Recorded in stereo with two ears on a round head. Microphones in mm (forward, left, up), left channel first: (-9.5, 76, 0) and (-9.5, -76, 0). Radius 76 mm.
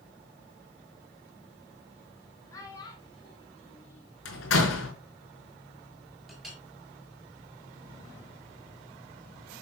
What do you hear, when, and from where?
2.5 s a child speaking: 20° left (ahead or behind), 3.5 m; by 4.1 s 40° left (ahead or behind), 4 m
4.2 s a door slam: 80° left, 5 m
6.3 s a clink: centre (ahead or behind), 5 m